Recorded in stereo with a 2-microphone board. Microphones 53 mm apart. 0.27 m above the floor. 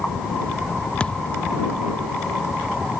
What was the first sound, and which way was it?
A thud, 20° left (ahead or behind).